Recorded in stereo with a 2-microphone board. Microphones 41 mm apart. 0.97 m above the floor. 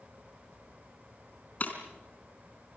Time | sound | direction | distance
1.6 | breaking glass | 40° left (ahead or behind) | 4 m